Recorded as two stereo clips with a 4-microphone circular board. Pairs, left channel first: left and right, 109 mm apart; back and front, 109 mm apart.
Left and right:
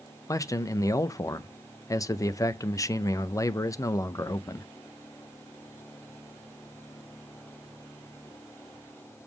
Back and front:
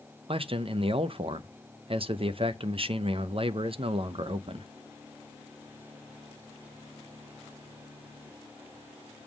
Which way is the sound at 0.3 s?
30° left.